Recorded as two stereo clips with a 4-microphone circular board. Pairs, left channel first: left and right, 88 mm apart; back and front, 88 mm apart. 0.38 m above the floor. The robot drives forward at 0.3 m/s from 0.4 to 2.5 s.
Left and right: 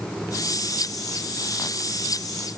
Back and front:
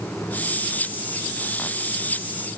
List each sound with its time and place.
Only background noise.